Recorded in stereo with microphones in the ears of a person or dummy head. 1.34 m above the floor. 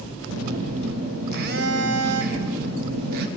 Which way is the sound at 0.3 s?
60° right (ahead or behind).